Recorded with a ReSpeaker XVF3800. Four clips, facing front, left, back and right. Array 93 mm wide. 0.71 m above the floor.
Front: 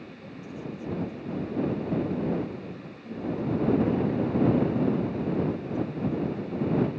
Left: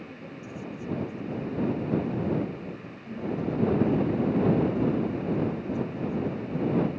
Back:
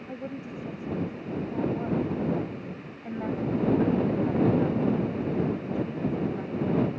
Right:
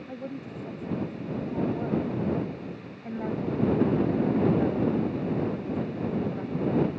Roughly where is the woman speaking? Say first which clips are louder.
Right 4 dB, back 5 dB; behind right.